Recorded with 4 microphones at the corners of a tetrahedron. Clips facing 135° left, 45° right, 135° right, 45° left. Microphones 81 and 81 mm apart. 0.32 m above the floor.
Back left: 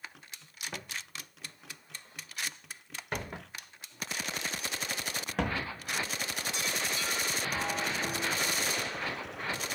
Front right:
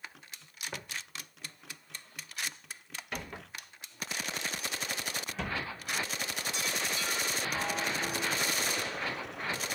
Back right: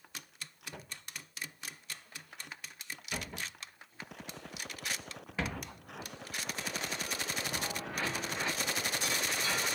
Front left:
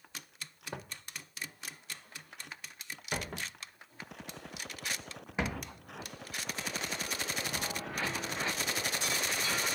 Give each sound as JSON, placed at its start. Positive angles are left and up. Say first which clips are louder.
{"t": 0.7, "sound": "footsteps", "louder": "even, front left 6 dB", "azimuth_deg": 40, "distance_m": 1.3}
{"t": 3.3, "sound": "footsteps", "louder": "back left 1 dB, front left 1 dB", "azimuth_deg": 65, "distance_m": 2.5}